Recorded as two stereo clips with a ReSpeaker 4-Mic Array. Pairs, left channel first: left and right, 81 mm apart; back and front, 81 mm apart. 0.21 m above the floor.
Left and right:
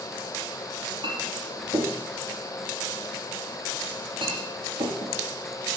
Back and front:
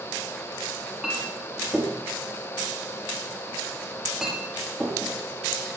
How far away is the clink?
About 3.5 m.